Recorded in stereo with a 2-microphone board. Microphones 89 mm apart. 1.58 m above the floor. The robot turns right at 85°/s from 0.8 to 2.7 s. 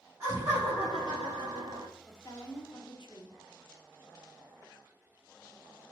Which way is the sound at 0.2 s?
150° right.